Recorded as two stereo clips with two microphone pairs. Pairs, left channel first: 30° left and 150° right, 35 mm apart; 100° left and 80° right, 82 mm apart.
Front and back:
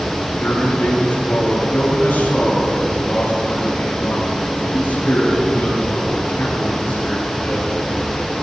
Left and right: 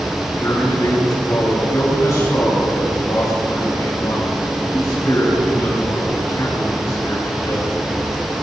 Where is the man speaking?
50° left, 5 m.